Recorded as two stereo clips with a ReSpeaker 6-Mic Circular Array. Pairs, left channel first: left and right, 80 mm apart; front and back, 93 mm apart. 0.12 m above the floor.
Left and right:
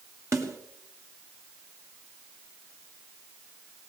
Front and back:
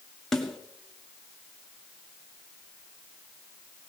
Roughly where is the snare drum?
Right.